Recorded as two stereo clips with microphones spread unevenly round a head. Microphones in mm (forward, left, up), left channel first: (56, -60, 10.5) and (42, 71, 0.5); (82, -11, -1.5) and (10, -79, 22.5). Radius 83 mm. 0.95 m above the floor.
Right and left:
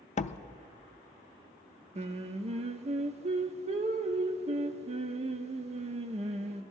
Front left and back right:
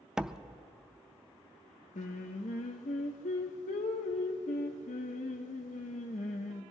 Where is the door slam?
45° right, 0.5 m.